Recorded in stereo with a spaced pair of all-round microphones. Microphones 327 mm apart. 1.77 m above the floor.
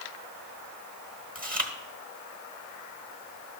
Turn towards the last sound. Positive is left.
turn(degrees=-25)  # may be behind; listen again after turning